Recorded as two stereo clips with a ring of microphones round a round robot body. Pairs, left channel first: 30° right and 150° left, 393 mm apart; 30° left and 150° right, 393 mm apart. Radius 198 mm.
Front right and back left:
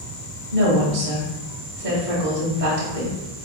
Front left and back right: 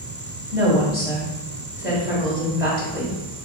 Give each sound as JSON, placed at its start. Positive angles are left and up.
{"t": 0.5, "sound": "a woman speaking", "azimuth_deg": 130, "distance_m": 1.1}